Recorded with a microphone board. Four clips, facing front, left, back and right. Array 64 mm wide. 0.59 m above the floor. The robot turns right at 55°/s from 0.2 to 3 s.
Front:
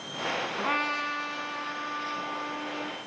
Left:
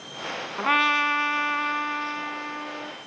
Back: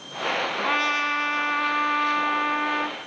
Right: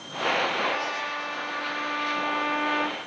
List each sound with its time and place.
0.6 s a trumpet: 95° left, 1.5 m; by 3.0 s 135° right, 1.5 m